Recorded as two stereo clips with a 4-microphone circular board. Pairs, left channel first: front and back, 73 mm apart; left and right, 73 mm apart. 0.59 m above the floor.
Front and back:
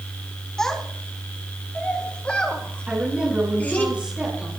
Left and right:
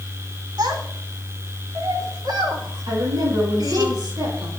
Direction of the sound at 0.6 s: 85° right.